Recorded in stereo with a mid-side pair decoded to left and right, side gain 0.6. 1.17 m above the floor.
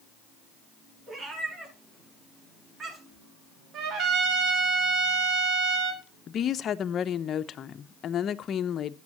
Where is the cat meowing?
40° right, 6.5 m; by 3.3 s 25° right, 7.5 m.